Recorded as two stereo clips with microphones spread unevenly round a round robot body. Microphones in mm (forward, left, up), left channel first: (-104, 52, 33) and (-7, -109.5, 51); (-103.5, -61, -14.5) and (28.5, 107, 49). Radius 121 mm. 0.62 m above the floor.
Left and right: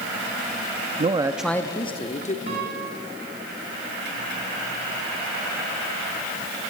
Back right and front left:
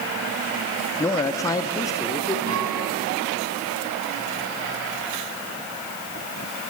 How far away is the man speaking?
About 0.9 m.